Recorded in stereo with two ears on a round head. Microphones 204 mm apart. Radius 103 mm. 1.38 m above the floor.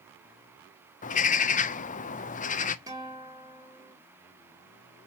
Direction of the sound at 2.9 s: 15° right (ahead or behind).